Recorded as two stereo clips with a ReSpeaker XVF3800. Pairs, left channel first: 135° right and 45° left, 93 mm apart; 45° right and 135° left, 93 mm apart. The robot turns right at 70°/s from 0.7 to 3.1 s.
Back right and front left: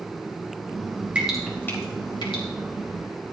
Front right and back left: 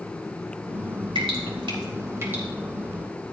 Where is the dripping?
120° left, 3.5 m; by 2.4 s 150° right, 3.5 m.